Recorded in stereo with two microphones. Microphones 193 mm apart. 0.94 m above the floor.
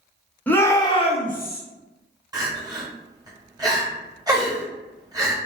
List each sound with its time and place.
0.5 s a shout: 10° left (ahead or behind), 0.7 m; by 1.6 s 55° left (ahead or behind), 0.6 m
2.3 s crying: 20° right (ahead or behind), 0.9 m